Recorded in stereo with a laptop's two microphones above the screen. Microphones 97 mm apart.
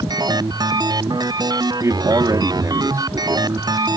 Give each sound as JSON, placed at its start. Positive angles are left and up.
{"t": 0.0, "sound": "a machine running", "side_deg": -40}
{"t": 1.8, "sound": "a man speaking", "side_deg": -35}